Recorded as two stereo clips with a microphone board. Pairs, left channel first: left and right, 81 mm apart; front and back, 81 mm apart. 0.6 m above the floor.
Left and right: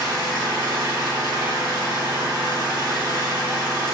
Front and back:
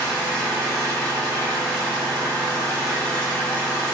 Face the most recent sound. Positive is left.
turn(degrees=-75)